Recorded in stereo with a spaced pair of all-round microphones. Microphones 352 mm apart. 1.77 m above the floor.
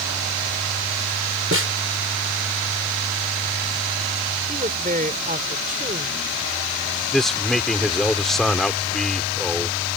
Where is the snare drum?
40° right (ahead or behind).